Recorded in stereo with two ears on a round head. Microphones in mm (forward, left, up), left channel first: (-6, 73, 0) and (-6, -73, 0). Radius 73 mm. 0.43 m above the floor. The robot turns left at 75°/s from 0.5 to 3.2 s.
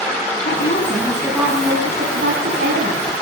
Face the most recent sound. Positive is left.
turn(degrees=-145)